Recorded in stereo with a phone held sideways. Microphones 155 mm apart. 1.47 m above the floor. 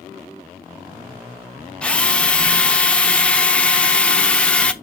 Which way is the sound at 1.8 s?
5° left (ahead or behind).